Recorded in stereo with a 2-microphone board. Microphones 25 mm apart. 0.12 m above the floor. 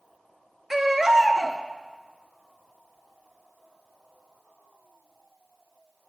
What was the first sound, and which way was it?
A baby crying, 5° right (ahead or behind).